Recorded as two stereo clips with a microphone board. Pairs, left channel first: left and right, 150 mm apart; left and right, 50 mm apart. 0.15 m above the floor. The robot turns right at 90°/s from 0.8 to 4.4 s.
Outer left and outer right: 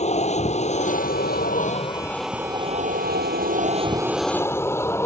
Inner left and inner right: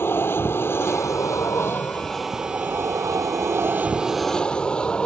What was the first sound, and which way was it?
An aircraft, 45° left (ahead or behind).